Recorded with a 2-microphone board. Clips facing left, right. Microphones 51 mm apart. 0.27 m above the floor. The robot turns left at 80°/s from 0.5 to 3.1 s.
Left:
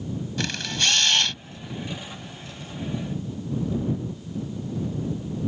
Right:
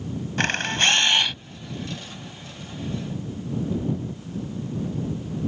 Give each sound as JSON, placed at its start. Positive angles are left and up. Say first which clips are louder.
{"t": 0.4, "sound": "a camera shutter", "louder": "right 6 dB", "azimuth_deg": -105}